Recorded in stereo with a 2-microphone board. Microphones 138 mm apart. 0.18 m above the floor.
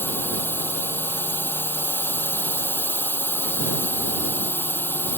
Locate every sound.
0.0 s a drone: 15° left (ahead or behind)